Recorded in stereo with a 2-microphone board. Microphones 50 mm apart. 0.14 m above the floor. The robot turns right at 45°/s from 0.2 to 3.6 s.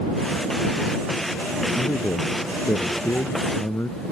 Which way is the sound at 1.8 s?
45° left.